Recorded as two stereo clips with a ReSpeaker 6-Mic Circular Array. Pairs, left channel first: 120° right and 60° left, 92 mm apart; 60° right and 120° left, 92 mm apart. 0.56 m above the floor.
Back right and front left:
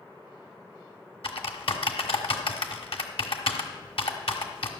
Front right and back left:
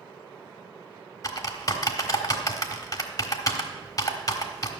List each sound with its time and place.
1.2 s typing on a keyboard: 110° right, 1.2 m